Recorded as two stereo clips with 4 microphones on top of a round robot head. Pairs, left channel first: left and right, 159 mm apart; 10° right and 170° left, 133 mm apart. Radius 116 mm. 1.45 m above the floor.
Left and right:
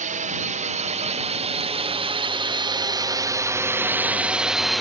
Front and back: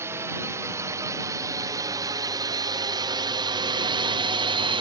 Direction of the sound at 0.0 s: 115° right.